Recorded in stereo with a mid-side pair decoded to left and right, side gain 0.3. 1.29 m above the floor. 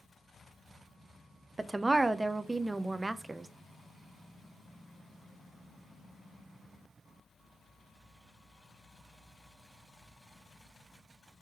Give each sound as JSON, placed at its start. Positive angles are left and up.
{"t": 1.6, "sound": "a woman speaking", "azimuth_deg": -30, "distance_m": 0.5}